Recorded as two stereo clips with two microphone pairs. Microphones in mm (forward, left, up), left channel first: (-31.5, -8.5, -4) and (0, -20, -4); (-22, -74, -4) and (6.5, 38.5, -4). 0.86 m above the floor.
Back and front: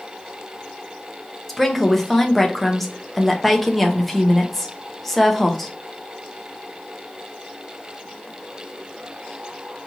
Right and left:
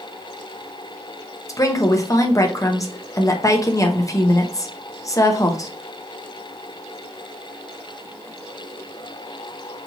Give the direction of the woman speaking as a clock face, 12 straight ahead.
4 o'clock.